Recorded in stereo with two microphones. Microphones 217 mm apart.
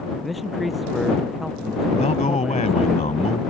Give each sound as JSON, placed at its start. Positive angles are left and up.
{"t": 0.2, "sound": "a man speaking", "side_deg": 0}
{"t": 1.9, "sound": "a man speaking", "side_deg": 30}